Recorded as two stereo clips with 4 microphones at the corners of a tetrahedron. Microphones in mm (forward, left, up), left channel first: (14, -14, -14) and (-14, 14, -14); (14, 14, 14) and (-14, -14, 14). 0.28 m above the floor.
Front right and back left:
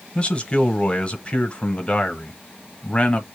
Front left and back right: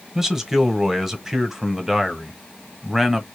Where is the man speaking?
60° right, 1.0 m.